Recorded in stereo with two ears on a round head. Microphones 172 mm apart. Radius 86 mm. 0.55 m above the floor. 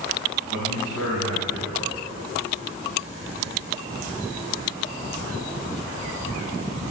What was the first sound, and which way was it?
A man speaking, 70° right (ahead or behind).